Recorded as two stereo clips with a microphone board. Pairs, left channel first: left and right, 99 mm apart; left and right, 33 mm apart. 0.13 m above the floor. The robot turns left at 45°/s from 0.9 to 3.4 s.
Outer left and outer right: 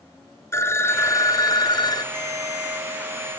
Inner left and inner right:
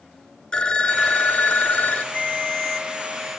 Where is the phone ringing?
140° left, 1.1 m; by 2.0 s 85° left, 1.1 m.